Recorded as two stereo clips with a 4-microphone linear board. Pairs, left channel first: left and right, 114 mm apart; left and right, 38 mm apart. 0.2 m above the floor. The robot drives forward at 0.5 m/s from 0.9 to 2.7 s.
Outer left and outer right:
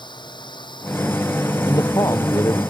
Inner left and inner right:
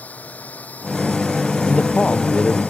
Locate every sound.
0.0 s a drone: 40° left (ahead or behind)
1.7 s a man speaking: 30° left (ahead or behind)